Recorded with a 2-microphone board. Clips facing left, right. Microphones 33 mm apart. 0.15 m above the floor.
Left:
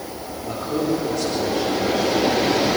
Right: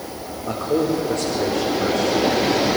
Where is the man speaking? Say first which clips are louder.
Right 2 dB; 45° right (ahead or behind), 9 m; by 2.8 s 55° right (ahead or behind), 8 m.